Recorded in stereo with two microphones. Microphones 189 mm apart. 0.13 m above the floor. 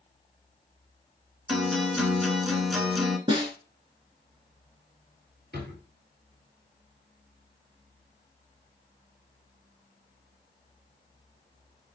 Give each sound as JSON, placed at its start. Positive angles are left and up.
{"t": 1.5, "sound": "a guitar", "side_deg": 0, "distance_m": 0.7}
{"t": 3.3, "sound": "a snare drum", "side_deg": -25, "distance_m": 0.9}
{"t": 5.5, "sound": "a drawer", "side_deg": -60, "distance_m": 1.6}